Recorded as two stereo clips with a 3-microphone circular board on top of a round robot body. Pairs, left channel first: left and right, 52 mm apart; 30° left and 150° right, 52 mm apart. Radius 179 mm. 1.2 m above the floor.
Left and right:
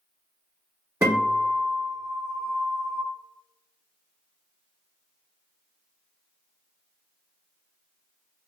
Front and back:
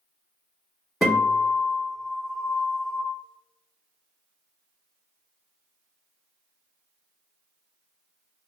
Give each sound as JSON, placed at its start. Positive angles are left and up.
{"t": 1.0, "sound": "a guitar", "azimuth_deg": -60, "distance_m": 1.0}